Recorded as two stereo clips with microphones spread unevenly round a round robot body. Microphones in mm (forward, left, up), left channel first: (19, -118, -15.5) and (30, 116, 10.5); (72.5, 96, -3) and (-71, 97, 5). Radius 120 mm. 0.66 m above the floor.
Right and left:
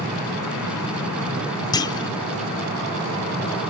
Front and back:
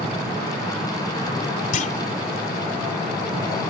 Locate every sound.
1.7 s a clunk: 25° right